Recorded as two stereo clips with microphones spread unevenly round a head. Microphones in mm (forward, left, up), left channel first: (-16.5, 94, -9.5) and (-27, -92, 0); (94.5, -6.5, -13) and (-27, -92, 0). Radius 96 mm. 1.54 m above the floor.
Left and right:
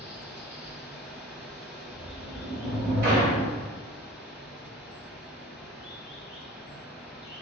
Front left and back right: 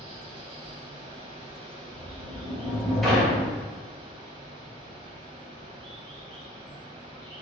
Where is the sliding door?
55° right, 1.6 m.